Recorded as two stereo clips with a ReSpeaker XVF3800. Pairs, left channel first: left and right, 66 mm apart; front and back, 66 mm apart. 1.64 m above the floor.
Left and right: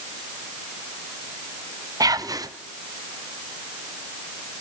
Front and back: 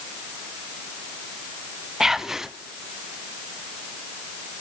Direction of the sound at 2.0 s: 95° right.